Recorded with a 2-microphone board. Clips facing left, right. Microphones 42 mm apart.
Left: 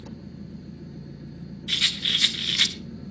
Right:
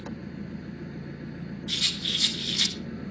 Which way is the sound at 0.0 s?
55° right (ahead or behind).